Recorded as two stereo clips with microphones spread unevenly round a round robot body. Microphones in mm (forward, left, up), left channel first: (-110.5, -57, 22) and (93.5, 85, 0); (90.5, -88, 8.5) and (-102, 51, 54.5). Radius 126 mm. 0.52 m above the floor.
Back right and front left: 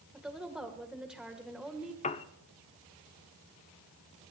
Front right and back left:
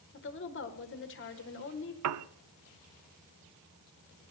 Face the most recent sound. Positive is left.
turn(degrees=150)